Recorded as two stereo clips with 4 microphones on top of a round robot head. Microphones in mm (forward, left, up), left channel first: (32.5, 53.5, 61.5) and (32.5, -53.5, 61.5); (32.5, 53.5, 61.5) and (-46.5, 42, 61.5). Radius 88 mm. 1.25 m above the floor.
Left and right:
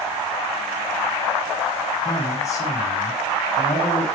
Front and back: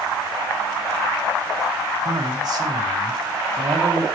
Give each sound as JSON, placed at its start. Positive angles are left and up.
{"t": 2.0, "sound": "a man speaking", "azimuth_deg": 150, "distance_m": 1.7}